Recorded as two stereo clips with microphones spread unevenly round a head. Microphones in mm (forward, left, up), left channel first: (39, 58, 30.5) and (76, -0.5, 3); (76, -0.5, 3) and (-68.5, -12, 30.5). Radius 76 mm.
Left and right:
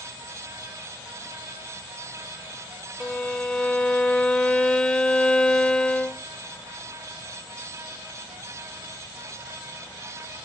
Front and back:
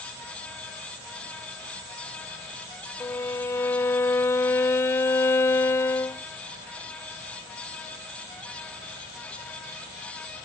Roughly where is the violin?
Left.